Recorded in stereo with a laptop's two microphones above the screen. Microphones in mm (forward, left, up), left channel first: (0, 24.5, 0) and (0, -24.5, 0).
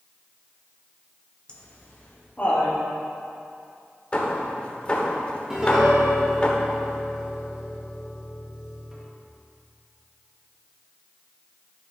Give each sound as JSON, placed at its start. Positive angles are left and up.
{"t": 1.5, "sound": "laughter", "side_deg": 20, "distance_m": 1.1}
{"t": 4.1, "sound": "hammering", "side_deg": 25, "distance_m": 1.1}
{"t": 5.5, "sound": "a piano", "side_deg": -10, "distance_m": 1.2}